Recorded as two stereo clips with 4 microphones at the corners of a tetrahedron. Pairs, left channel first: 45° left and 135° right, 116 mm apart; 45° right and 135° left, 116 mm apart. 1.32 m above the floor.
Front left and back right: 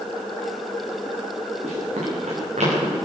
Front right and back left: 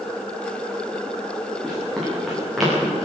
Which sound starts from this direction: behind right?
Running footsteps, at 1.6 s.